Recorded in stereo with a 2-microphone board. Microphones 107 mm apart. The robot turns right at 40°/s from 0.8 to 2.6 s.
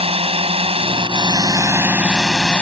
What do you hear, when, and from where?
0.0 s a drone: 65° right (ahead or behind); by 2.6 s 10° left (ahead or behind)